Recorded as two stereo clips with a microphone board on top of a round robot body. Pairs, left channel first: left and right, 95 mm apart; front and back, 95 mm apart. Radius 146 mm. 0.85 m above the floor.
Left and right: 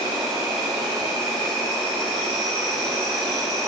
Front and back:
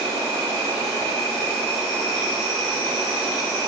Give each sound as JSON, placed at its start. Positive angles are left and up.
{"t": 0.0, "sound": "an insect", "azimuth_deg": 180, "distance_m": 1.7}